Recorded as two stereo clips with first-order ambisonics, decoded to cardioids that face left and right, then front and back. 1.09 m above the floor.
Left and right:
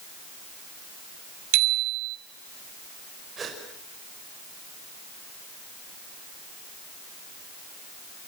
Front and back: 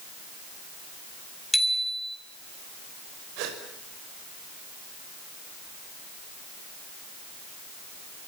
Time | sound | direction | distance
1.5 | a bicycle bell | 90° right | 5 m
3.4 | a gasp | 160° right | 5.5 m